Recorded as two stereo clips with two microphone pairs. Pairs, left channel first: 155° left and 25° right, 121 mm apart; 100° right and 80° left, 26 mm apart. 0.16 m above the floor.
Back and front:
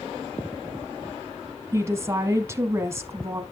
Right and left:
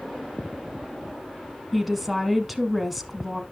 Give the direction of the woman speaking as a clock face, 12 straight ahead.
12 o'clock.